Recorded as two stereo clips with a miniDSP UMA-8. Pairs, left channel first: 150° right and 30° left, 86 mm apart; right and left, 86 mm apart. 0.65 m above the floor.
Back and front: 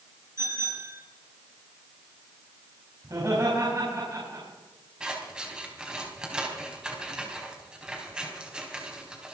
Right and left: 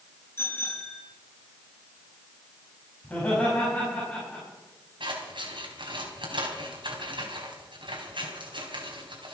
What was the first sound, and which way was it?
A bicycle bell, 25° right.